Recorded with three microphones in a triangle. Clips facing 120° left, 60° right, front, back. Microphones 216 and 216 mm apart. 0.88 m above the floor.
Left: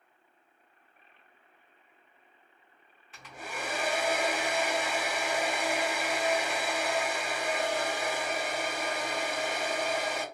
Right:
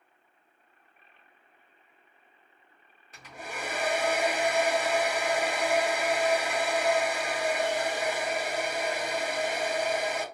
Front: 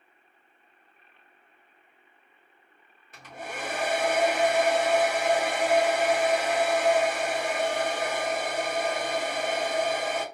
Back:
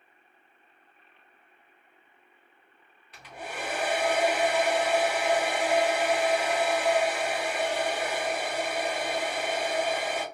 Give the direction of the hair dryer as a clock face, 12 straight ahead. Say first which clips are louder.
Even, even; 1 o'clock.